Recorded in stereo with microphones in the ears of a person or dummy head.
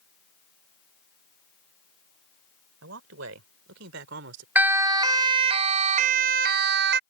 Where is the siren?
15° right (ahead or behind); by 7.0 s 70° right (ahead or behind).